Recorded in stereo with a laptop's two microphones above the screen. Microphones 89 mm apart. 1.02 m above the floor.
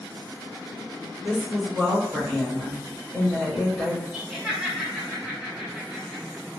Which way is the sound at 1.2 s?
5° left (ahead or behind).